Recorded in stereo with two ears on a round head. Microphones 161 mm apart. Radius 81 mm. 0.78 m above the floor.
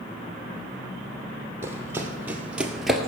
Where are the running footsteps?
15° right (ahead or behind), 2.0 m; by 3.1 s 5° left (ahead or behind), 1.0 m.